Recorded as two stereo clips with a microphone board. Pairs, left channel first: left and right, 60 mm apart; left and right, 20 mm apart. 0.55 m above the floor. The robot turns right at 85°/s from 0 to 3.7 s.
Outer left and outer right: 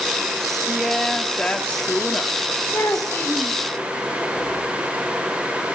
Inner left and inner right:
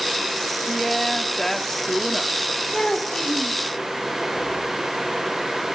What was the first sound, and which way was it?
A woman speaking, 10° right (ahead or behind).